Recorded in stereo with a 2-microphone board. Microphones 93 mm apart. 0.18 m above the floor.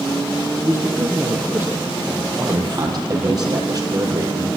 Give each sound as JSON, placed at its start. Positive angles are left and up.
{"t": 0.6, "sound": "a man speaking", "side_deg": -25, "distance_m": 4.5}
{"t": 2.4, "sound": "a man speaking", "side_deg": -40, "distance_m": 5.0}